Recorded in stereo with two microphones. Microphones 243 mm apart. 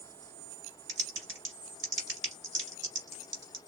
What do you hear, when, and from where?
0.9 s typing on a keyboard: 50° right (ahead or behind), 1.7 m